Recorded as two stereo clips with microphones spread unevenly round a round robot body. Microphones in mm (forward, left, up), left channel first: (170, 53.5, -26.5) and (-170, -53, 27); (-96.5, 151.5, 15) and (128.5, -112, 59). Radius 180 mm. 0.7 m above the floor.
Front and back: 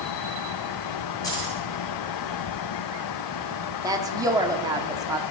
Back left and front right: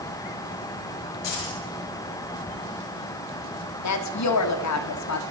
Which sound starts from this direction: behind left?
A woman speaking, at 3.8 s.